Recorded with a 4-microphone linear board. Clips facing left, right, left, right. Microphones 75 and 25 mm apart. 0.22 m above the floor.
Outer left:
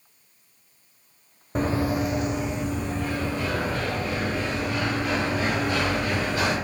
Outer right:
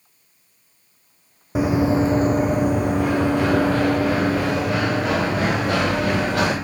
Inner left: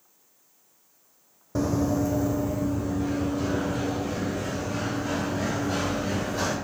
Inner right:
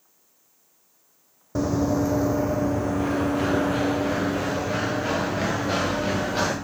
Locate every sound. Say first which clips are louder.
1.6 s running footsteps: outer right 6 dB, inner right 2 dB; 5° right (ahead or behind), 0.6 m; by 6.5 s 85° right, 3 m